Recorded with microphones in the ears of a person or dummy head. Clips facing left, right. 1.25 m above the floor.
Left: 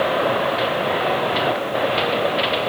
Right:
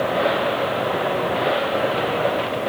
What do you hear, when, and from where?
Only background noise.